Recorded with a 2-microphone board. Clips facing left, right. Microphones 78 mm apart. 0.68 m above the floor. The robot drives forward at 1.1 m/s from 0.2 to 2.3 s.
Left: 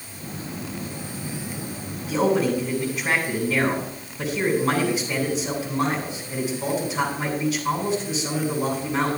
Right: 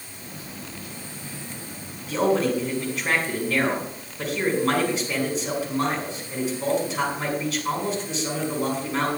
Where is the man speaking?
5° left (ahead or behind), 5.5 m.